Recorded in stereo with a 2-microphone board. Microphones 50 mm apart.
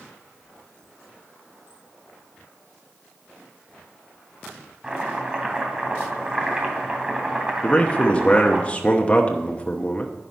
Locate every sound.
4.8 s chopping: 20° right (ahead or behind), 2.5 m
7.6 s a man speaking: 25° left (ahead or behind), 0.9 m